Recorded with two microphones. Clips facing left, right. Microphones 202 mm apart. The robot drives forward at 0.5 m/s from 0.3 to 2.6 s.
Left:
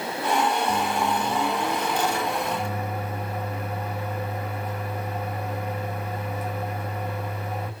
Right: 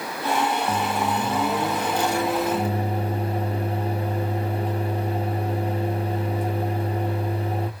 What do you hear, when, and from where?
0.7 s a microwave: 35° right (ahead or behind), 1.1 m; by 7.7 s 30° right (ahead or behind), 1.1 m